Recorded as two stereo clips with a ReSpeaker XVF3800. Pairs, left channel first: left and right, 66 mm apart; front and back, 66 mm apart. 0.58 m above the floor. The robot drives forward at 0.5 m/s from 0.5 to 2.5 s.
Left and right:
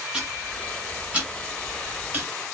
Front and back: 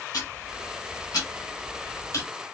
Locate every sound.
0.1 s ticking: 20° right, 1.9 m; by 2.3 s 35° right, 1.1 m